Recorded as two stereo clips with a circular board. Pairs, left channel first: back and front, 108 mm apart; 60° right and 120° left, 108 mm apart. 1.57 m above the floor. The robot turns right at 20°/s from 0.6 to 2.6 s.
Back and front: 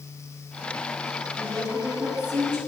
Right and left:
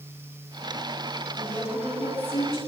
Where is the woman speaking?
65° right, 5.5 m; by 2.6 s 40° right, 5.5 m.